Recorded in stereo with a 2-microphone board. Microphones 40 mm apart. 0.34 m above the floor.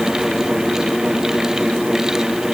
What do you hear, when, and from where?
Only background noise.